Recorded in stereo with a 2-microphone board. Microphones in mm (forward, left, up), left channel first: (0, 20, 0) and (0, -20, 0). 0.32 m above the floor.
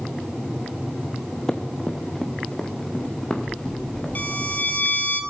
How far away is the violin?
About 1.9 m.